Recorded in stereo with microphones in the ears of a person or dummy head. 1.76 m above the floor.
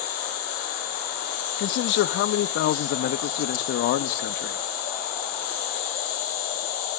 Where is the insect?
35° left (ahead or behind), 6.5 m.